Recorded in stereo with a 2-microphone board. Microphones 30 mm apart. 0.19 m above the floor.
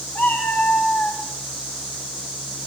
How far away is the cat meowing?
About 6 m.